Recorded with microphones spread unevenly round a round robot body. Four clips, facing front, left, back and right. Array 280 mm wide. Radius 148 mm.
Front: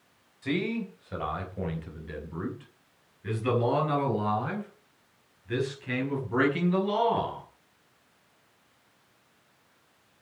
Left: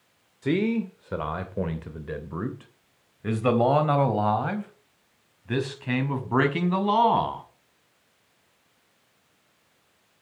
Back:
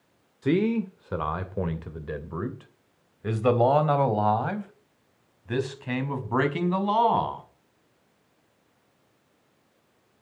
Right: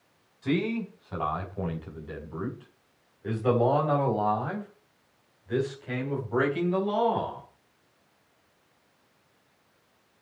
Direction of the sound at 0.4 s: 170° left.